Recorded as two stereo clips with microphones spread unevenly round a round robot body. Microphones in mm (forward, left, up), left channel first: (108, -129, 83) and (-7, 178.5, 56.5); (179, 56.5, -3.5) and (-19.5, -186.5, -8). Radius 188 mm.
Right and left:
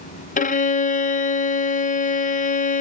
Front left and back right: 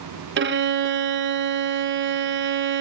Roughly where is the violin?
Behind right.